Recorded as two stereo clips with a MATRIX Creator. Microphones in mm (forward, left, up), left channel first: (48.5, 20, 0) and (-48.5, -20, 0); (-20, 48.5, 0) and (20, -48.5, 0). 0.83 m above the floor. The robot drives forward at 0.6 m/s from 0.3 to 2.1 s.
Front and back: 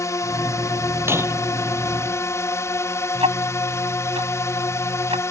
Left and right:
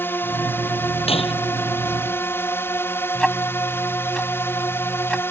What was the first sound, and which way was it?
A drone, 55° left.